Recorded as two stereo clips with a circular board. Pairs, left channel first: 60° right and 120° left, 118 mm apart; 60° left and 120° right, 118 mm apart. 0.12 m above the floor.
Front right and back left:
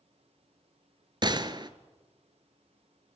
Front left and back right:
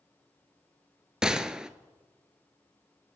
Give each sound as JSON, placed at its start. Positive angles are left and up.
{"t": 1.2, "sound": "a gunshot", "azimuth_deg": 155, "distance_m": 0.8}